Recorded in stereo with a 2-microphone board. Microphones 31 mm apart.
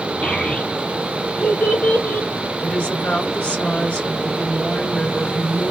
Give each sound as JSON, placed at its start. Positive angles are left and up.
{"t": 0.2, "sound": "a child speaking", "side_deg": 55, "distance_m": 3.5}
{"t": 2.6, "sound": "a woman speaking", "side_deg": 60, "distance_m": 2.5}